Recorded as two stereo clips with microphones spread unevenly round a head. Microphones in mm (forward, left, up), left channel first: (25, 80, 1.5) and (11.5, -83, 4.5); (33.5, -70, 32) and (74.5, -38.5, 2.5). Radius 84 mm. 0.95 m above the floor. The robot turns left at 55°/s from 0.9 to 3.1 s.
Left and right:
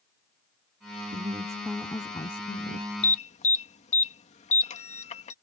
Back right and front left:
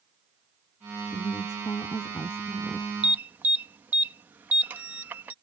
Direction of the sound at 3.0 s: 50° left.